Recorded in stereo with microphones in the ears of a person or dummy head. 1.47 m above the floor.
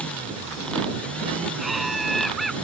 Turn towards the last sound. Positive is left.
turn(degrees=10)  # may be behind; listen again after turning